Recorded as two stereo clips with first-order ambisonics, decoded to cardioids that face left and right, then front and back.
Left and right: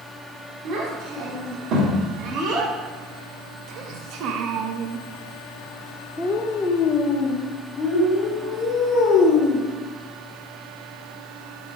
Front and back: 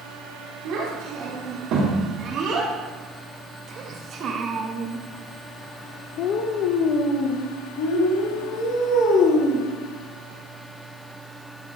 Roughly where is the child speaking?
Behind right.